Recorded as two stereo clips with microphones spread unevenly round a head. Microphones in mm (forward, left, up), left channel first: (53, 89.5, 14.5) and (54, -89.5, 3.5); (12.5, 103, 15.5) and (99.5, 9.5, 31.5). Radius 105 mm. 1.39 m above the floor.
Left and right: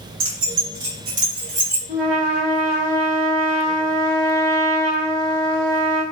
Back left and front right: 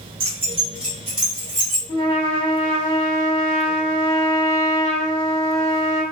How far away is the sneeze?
No sneeze in this recording.